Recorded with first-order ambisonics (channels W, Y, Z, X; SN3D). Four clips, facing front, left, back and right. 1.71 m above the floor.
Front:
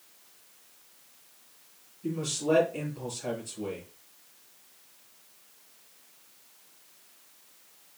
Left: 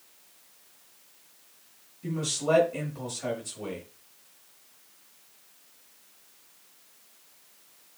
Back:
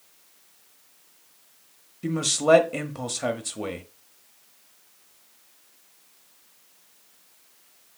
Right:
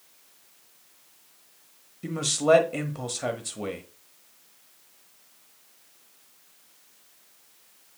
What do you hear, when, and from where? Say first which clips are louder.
2.0 s a man speaking: right 6 dB, back 8 dB; 150° right, 1.0 m